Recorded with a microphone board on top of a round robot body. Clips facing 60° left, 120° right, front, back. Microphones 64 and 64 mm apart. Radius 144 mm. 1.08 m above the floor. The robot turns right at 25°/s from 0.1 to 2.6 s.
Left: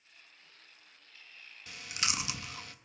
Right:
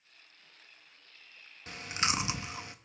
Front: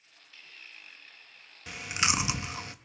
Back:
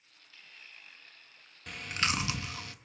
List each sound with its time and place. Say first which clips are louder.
1.7 s chewing: right 5 dB, front 2 dB; 80° right, 0.8 m; by 2.8 s 60° right, 0.8 m